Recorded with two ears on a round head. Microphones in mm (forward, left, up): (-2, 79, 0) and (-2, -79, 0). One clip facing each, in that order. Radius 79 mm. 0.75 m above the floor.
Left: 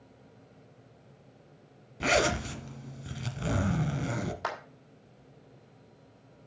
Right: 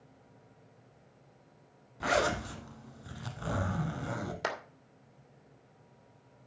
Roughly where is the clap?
Right.